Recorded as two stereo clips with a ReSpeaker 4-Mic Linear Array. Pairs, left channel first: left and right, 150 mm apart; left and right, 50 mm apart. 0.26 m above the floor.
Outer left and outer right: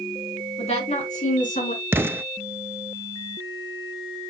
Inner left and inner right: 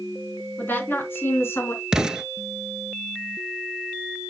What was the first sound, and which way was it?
A woman speaking, 45° left (ahead or behind).